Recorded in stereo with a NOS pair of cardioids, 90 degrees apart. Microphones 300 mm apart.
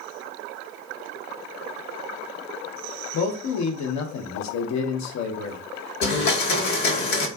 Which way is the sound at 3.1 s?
70° left.